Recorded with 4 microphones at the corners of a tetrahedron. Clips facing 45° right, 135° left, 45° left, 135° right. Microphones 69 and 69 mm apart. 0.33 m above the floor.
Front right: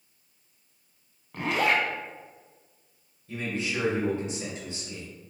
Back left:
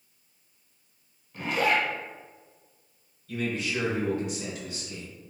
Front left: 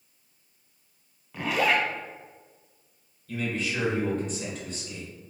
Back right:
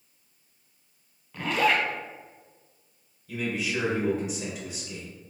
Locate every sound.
1.3 s a zipper: 40° right, 0.6 m
3.3 s a man speaking: 65° right, 1.3 m